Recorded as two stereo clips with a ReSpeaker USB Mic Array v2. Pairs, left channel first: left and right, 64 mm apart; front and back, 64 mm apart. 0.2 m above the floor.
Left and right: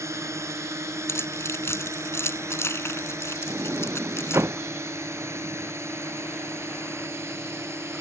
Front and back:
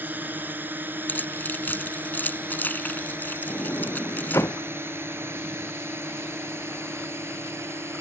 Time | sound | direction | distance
0.0 | a drone | 120° right | ?
1.1 | keys jangling | 55° left | ?
3.5 | a sliding door | 40° right | ?